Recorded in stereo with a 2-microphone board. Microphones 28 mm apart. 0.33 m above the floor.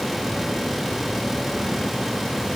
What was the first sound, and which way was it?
Only background noise.